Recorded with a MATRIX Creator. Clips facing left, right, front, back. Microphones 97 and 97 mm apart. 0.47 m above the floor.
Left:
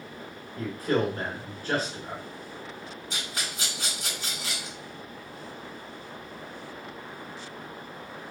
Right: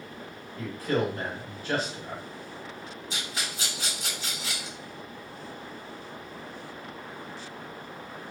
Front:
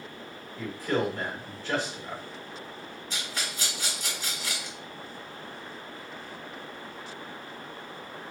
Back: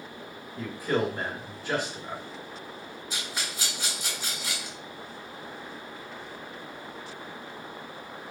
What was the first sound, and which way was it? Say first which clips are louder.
A man speaking: left 1 dB, back 1 dB; 110° left.